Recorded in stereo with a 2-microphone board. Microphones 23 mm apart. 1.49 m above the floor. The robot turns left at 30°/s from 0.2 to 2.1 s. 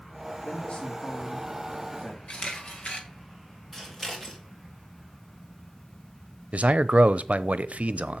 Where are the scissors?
15° left (ahead or behind), 3.5 m.